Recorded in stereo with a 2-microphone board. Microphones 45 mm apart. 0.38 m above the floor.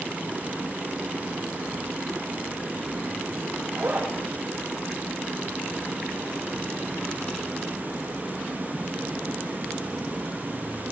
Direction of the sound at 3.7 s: 50° right (ahead or behind).